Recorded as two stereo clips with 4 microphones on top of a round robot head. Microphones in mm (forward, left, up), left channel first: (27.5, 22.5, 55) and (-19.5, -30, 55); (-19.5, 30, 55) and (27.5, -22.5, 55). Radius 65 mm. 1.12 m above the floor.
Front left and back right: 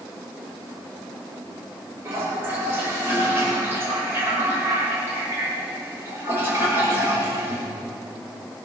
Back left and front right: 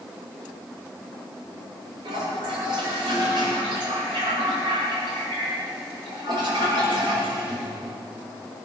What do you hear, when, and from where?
2.0 s a toilet flushing: 70° right, 4.5 m